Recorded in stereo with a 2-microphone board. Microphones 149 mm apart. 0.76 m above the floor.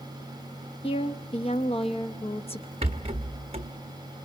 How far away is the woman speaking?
About 0.8 m.